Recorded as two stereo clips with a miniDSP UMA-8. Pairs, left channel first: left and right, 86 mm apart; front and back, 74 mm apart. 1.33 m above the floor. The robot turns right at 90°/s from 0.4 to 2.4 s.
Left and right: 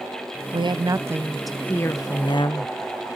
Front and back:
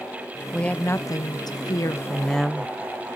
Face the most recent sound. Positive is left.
turn(degrees=85)